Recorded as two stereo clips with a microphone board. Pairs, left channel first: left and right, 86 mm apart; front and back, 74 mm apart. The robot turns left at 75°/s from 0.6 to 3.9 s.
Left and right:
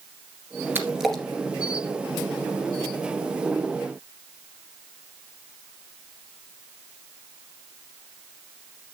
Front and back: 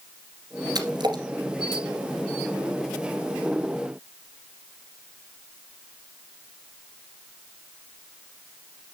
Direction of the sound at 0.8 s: 155° right.